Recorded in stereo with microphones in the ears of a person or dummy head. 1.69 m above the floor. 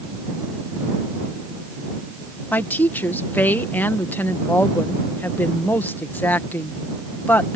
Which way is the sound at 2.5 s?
10° left (ahead or behind).